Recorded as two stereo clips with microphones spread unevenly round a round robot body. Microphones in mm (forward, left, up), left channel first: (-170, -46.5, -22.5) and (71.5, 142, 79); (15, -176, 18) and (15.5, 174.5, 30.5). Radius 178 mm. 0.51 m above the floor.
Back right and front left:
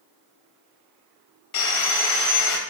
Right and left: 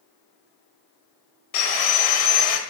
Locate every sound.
1.5 s sawing: 105° right, 1.1 m